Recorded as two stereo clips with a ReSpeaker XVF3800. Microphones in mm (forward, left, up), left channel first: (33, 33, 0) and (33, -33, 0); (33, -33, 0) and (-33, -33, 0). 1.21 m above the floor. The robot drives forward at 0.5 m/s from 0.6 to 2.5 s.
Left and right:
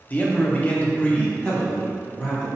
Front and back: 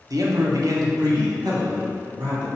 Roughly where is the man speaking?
Behind left.